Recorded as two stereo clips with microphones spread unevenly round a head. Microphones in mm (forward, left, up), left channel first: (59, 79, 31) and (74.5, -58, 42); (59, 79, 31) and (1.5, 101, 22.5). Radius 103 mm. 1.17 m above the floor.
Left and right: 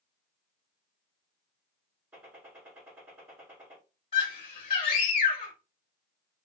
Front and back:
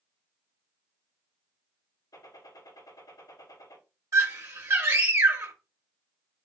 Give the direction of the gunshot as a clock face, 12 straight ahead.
12 o'clock.